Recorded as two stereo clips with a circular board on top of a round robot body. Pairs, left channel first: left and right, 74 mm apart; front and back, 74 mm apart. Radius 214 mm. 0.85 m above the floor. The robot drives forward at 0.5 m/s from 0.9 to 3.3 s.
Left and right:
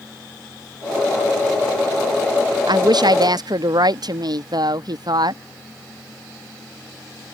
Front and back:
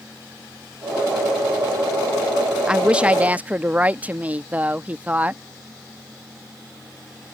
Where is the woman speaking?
100° right; by 5.4 s 110° right.